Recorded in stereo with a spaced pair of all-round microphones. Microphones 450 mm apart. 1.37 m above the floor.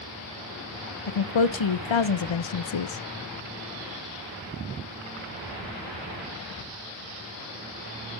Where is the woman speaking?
80° left, 0.5 m.